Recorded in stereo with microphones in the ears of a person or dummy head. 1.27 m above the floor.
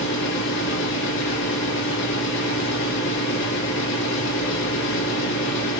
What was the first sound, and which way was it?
A fan, 70° left (ahead or behind).